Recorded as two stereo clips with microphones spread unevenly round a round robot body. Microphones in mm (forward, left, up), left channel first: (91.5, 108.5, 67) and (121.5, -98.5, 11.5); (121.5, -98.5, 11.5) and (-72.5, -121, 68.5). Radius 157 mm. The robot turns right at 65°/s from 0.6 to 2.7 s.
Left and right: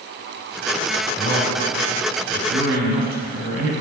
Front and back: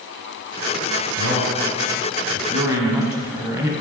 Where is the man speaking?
160° left, 4.5 m; by 3.7 s 100° right, 4.5 m.